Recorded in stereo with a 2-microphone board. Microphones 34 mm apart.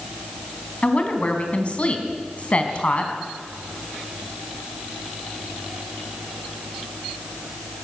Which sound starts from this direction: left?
A woman speaking, at 0.8 s.